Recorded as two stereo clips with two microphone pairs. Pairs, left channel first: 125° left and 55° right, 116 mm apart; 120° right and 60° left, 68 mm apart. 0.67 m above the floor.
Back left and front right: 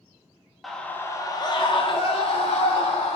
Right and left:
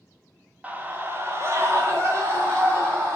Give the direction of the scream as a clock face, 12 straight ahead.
11 o'clock.